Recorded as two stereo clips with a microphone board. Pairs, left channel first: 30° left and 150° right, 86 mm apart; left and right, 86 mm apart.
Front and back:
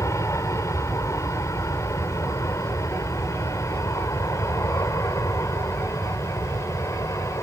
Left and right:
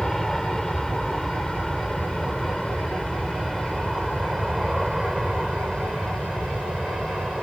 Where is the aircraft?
5° left; by 7.4 s 10° right.